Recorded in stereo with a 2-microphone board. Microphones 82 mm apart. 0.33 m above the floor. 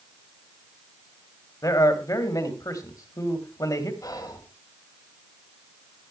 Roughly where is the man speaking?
Left.